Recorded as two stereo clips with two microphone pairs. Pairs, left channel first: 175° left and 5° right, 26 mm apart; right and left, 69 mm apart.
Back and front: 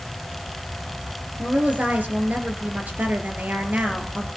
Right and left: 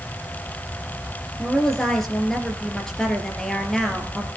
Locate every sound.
1.4 s a woman speaking: 5° right, 3.5 m